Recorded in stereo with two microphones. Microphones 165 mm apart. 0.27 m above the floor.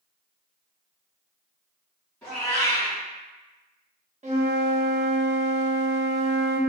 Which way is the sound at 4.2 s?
40° right (ahead or behind).